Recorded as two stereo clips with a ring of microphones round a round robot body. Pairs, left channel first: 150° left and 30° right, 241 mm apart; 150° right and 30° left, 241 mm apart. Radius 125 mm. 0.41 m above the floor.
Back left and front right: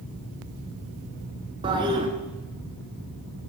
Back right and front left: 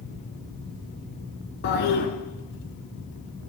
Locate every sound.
1.6 s a toilet flushing: 100° right, 0.8 m